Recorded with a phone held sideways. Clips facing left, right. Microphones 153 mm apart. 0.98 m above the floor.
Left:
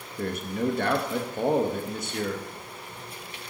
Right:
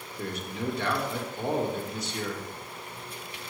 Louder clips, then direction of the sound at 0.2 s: Left 6 dB; 50° left (ahead or behind).